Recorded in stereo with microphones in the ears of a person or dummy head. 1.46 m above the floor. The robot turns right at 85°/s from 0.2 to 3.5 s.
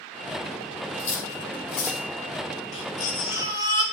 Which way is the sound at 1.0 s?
60° left (ahead or behind).